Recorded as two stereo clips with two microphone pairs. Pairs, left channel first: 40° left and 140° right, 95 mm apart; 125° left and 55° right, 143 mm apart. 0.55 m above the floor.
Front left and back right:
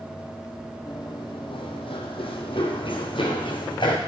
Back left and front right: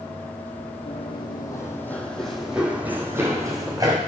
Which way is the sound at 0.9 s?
80° left.